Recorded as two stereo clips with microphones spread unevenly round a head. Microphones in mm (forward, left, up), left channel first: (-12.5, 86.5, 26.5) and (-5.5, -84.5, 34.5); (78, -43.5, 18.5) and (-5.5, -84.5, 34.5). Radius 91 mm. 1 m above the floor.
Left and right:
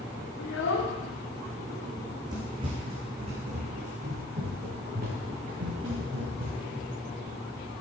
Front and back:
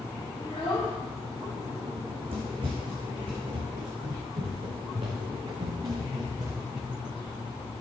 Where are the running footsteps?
160° right, 3 m; by 6.8 s 115° right, 5 m.